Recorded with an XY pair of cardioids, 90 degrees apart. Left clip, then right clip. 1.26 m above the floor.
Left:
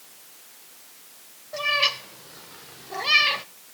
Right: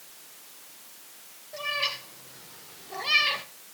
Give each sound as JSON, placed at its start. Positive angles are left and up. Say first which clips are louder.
{"t": 1.5, "sound": "a cat meowing", "louder": "left 7 dB", "azimuth_deg": 55, "distance_m": 3.5}